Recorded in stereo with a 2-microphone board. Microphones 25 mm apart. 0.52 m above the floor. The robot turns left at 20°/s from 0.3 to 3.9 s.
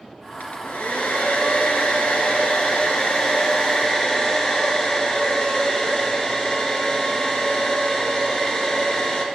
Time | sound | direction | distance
0.4 | a hair dryer | 100° left | 2 m